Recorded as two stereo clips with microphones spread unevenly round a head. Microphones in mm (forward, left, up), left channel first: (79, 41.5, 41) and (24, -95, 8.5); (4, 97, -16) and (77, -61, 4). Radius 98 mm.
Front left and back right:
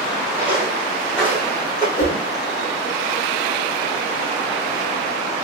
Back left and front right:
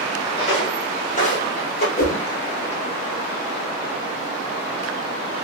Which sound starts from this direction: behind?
Footsteps, at 0.4 s.